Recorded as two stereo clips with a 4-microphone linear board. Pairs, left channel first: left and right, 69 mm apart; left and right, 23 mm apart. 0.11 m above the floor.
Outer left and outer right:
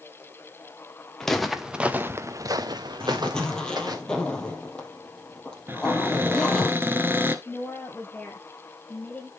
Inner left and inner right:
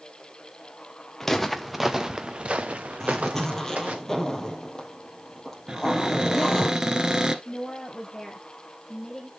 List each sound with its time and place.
1.2 s footsteps: 5° left (ahead or behind), 1.7 m; by 4.0 s 75° right (ahead or behind), 2.5 m
3.0 s a zipper: 10° left (ahead or behind), 2.5 m
5.7 s a cupboard door: 30° right (ahead or behind), 1.2 m
7.5 s a woman speaking: 25° left (ahead or behind), 3 m